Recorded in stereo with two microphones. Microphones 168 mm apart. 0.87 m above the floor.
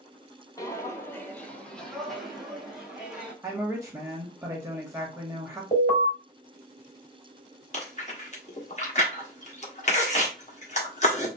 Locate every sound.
0.6 s footsteps: 20° left (ahead or behind), 0.9 m; by 3.3 s 5° right (ahead or behind), 1.8 m
3.4 s a woman speaking: 10° right (ahead or behind), 1.8 m
5.7 s an alarm: 40° left (ahead or behind), 3 m
7.7 s chewing: 45° left (ahead or behind), 1.4 m